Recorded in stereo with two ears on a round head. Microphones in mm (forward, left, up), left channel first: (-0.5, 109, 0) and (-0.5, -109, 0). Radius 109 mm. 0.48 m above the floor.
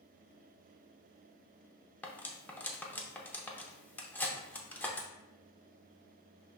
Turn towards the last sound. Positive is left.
turn(degrees=10)  # may be behind; listen again after turning